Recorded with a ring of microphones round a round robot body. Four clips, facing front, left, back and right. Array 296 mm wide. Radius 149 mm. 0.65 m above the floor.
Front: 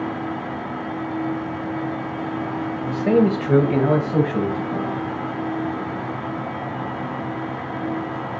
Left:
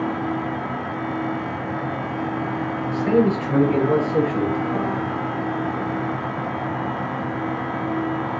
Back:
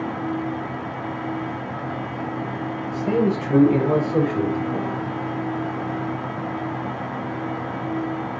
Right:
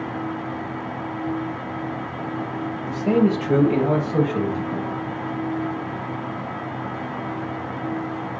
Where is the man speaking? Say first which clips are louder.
Left 1 dB, front 4 dB; 10° right, 2.5 m; by 4.9 s 15° right, 4 m.